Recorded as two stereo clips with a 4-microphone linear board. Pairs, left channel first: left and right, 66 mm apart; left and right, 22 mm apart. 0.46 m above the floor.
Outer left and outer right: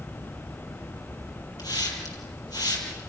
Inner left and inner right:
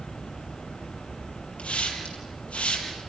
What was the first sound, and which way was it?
A hiss, 85° left.